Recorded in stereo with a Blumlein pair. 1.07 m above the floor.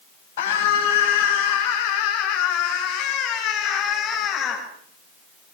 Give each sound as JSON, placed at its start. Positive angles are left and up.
{"t": 0.4, "sound": "a scream", "azimuth_deg": 55, "distance_m": 8.0}